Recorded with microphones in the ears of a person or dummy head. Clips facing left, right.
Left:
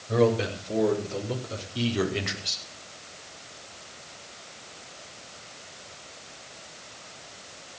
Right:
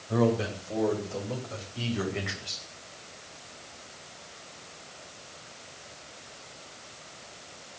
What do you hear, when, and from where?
0.1 s a man speaking: 40° left (ahead or behind), 7 m; by 2.6 s 60° left (ahead or behind), 4 m